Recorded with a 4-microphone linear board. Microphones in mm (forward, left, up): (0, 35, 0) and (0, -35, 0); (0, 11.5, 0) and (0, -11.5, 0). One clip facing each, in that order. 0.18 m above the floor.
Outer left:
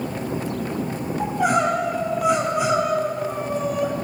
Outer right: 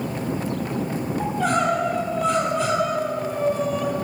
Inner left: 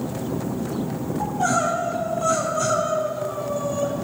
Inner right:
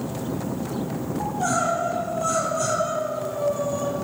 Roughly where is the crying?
Centre.